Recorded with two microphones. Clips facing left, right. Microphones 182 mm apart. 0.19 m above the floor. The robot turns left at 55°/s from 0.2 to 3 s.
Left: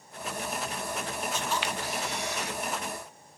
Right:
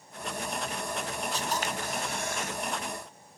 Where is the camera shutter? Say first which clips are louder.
Even; 45° right, 0.6 m; by 2.6 s 115° right, 0.6 m.